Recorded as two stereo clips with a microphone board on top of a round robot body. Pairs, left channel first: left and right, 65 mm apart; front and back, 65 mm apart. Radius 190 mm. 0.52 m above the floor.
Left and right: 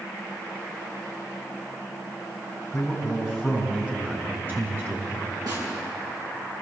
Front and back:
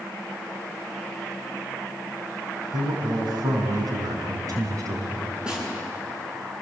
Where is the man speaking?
Straight behind, 5.5 m; by 5.4 s 140° right, 6.5 m.